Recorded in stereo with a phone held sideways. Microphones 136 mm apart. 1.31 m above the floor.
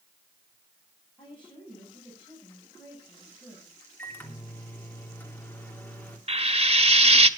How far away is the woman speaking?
About 9 m.